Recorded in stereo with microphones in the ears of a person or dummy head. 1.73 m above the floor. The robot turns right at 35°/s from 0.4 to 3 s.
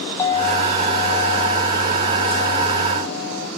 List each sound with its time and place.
0.2 s a clink: 25° left, 1.4 m; by 3.5 s 115° left, 1.4 m